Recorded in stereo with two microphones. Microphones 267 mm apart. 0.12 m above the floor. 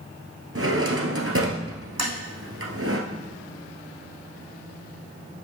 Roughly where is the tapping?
Right.